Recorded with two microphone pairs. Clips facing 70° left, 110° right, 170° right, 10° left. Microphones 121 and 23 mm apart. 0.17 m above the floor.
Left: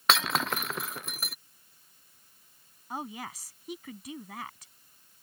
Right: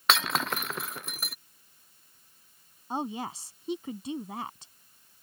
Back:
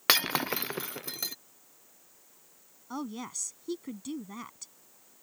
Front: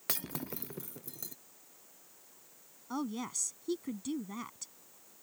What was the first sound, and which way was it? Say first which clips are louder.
Breaking glass: even, back 15 dB; 160° left.